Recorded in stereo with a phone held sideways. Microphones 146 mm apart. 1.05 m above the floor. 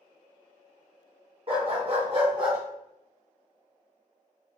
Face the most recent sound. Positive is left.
turn(degrees=-35)  # may be behind; listen again after turning